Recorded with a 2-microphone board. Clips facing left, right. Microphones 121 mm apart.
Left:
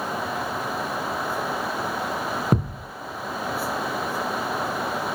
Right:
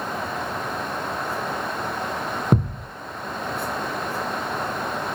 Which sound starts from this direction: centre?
A thud, at 2.5 s.